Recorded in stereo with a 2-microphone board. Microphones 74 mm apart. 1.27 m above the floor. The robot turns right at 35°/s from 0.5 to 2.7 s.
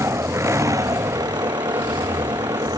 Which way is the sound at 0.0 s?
140° right.